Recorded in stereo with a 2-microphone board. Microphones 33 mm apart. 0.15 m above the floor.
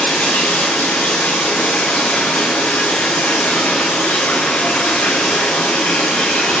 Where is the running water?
75° left (ahead or behind), 5 m.